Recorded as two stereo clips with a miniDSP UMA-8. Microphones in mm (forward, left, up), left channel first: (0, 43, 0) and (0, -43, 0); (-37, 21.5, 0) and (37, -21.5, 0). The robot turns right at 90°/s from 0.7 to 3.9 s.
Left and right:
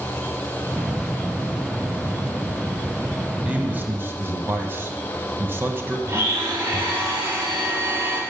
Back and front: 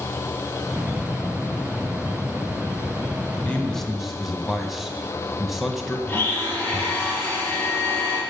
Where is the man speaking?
155° right, 1.4 m; by 6.0 s 115° right, 1.4 m.